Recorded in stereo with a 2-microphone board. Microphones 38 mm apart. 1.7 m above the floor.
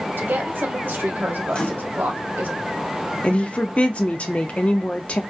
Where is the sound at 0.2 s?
70° right (ahead or behind), 0.8 m.